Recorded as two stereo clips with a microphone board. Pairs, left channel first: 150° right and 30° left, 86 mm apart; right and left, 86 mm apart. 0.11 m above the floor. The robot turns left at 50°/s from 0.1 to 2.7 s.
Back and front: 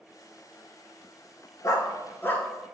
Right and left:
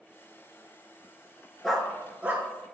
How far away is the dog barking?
About 0.5 m.